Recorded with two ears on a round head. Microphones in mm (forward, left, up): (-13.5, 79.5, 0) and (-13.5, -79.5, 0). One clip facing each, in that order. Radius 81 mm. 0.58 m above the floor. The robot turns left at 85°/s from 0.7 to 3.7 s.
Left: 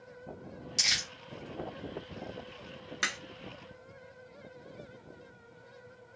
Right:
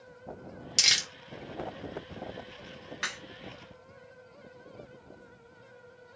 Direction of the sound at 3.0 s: 55° left (ahead or behind).